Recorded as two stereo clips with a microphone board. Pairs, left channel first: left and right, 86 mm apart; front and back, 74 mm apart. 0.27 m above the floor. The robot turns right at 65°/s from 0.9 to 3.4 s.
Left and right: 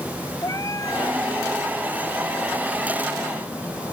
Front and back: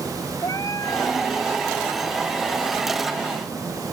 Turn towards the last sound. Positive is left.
turn(degrees=-160)